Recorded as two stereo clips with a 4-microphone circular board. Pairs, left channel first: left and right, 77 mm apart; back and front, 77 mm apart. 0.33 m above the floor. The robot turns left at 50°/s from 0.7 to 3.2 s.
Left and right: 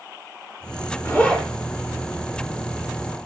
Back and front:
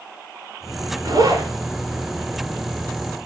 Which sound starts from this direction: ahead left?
A zipper, at 1.1 s.